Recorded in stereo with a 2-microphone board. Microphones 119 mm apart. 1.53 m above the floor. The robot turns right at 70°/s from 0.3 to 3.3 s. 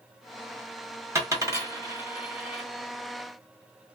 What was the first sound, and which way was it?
A dropped coin, 25° right (ahead or behind).